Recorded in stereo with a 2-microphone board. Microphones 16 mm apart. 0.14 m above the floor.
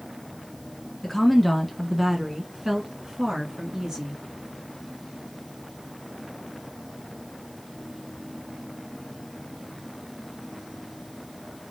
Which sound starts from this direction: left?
A woman speaking, at 1.0 s.